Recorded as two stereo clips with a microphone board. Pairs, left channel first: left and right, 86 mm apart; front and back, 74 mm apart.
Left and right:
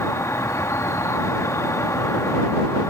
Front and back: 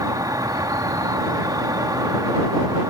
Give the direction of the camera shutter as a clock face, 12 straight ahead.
No camera shutter in this recording.